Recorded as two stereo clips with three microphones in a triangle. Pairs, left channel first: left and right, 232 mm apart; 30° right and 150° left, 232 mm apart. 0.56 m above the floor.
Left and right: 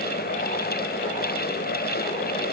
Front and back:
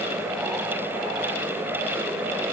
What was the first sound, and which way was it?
Only background noise.